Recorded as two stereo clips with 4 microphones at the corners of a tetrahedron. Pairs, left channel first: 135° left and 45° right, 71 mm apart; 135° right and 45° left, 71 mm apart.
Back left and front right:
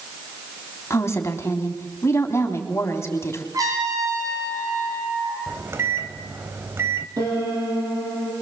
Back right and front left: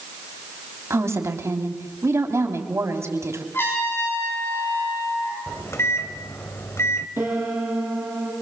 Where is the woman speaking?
90° left, 3 m.